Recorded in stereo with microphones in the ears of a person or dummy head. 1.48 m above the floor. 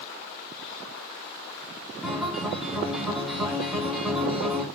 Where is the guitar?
Centre (ahead or behind), 0.6 m.